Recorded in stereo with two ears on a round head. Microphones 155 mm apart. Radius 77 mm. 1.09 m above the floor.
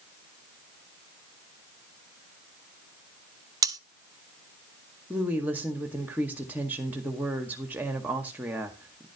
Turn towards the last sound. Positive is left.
turn(degrees=-10)  # may be behind; listen again after turning